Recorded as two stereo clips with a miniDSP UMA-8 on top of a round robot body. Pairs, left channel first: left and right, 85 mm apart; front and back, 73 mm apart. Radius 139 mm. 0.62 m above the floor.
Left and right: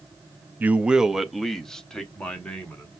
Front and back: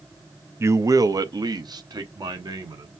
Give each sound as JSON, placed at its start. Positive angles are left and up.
{"t": 0.6, "sound": "a man speaking", "azimuth_deg": -150, "distance_m": 0.6}